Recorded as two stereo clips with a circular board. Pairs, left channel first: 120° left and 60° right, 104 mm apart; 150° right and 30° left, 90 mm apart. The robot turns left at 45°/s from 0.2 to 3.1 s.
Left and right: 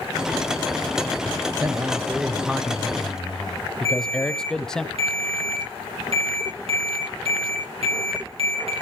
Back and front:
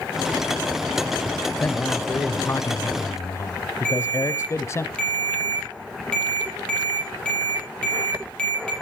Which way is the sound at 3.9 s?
70° right.